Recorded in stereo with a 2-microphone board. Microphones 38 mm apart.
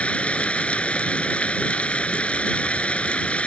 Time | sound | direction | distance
0.0 | running water | 30° left (ahead or behind) | ?